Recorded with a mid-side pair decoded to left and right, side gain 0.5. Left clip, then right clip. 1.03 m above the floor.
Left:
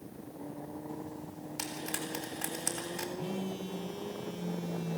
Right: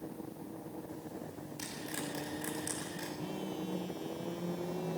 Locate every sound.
1.6 s frying: 60° left, 7.5 m
3.2 s a phone buzzing: 25° left, 1.6 m